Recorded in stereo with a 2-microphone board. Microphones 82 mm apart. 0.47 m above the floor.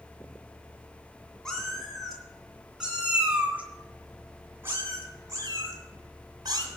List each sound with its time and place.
1.4 s a cat meowing: 5° left (ahead or behind), 3 m; by 6.7 s 55° right (ahead or behind), 3 m